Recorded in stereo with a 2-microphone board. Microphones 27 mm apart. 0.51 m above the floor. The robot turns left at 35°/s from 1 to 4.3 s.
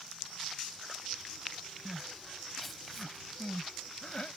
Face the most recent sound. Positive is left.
turn(degrees=55)  # may be behind; listen again after turning